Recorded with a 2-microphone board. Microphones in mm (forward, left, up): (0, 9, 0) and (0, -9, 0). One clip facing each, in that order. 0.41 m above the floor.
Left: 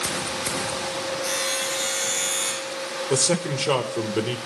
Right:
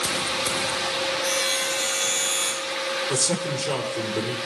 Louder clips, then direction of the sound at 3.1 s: Left 2 dB; 30° left (ahead or behind).